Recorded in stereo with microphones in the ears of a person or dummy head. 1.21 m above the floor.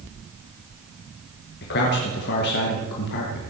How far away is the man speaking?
About 1.5 m.